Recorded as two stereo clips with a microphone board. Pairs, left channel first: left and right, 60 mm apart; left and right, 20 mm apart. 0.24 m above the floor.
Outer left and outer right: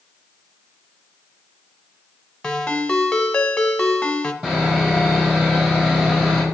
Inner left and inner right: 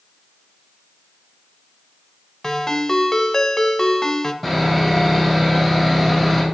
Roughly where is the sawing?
Centre.